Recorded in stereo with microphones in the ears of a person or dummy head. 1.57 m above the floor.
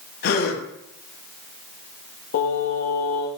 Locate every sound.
0.2 s a gasp: 60° left (ahead or behind), 2.5 m
2.3 s singing: 55° left (ahead or behind), 1.9 m